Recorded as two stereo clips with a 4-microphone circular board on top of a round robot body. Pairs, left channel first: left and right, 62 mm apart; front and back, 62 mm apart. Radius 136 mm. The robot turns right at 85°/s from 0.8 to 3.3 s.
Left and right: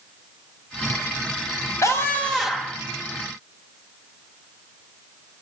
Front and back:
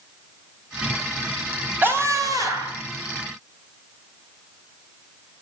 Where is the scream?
125° left, 2.5 m; by 2.8 s 150° right, 2.5 m.